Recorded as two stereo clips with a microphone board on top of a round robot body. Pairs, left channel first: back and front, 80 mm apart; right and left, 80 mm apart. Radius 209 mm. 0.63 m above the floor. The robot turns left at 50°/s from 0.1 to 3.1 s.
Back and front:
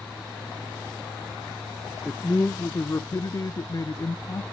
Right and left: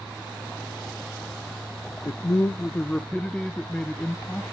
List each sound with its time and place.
2.0 s a man speaking: 110° right, 0.6 m; by 4.4 s 165° right, 0.6 m